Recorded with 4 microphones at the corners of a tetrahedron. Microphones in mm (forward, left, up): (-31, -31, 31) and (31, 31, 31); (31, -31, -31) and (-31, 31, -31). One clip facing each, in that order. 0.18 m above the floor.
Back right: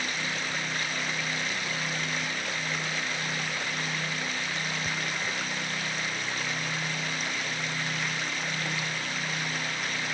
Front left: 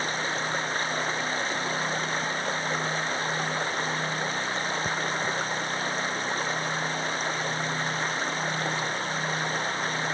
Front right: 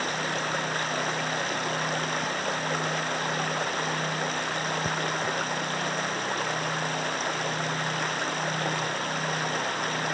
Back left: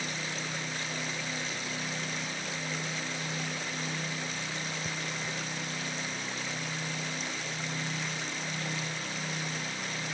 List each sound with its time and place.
0.0 s running water: 10° right